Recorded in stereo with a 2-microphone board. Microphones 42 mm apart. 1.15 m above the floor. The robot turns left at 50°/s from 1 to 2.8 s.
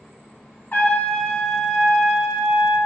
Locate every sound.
0.7 s a trumpet: 45° left, 1.1 m; by 2.8 s 45° right, 1.1 m